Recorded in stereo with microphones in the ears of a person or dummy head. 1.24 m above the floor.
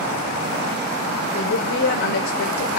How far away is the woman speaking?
About 4 m.